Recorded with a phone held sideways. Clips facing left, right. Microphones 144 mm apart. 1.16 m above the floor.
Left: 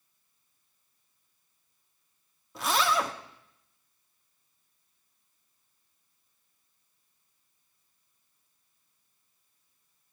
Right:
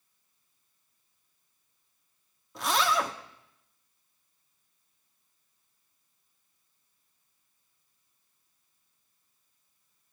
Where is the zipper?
Centre (ahead or behind), 1.2 m.